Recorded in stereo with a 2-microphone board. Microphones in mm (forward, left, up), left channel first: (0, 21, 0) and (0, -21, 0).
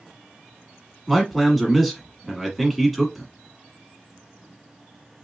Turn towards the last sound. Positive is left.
turn(degrees=0)  # may be behind; listen again after turning